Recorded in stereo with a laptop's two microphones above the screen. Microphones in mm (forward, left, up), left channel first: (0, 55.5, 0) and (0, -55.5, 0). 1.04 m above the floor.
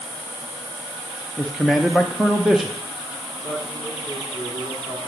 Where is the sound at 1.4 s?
5° right (ahead or behind), 0.8 m.